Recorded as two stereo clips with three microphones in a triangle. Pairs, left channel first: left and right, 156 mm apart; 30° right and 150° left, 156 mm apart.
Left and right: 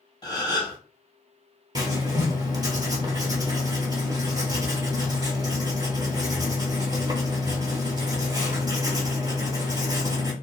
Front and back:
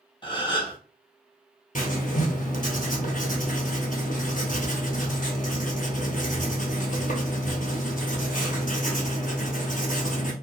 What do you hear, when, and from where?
0.2 s a gasp: 25° left, 1.0 m
1.8 s writing: 25° right, 1.1 m